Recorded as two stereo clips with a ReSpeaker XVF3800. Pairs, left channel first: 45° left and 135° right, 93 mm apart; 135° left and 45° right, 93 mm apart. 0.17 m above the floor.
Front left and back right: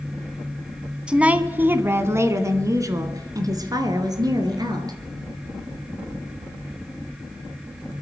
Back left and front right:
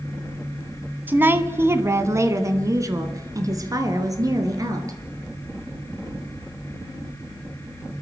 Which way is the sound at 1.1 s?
75° right.